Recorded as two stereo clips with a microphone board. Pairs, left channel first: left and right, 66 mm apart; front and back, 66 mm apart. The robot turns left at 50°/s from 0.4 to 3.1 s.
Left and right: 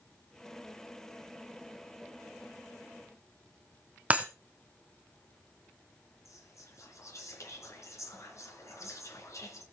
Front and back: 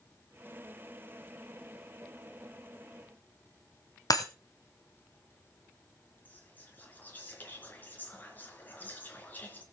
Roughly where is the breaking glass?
Ahead.